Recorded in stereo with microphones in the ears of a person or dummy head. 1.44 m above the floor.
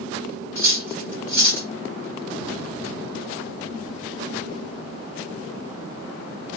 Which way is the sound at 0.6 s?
15° right (ahead or behind).